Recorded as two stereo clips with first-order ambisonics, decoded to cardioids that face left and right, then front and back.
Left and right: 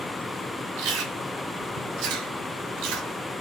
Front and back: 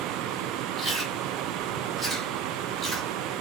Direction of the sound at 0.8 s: 95° right.